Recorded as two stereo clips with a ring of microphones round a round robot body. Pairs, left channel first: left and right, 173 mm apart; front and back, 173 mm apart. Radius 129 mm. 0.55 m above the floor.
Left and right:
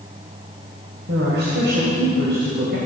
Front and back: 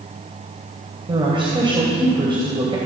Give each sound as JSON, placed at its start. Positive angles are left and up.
{"t": 1.1, "sound": "a woman speaking", "azimuth_deg": -120, "distance_m": 3.0}